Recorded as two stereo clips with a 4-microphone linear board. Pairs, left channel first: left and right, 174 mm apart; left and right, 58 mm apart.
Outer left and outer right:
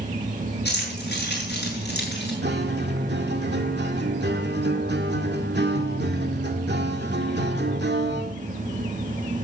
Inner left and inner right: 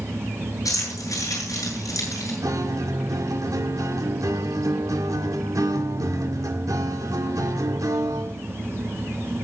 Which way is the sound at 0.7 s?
70° left (ahead or behind).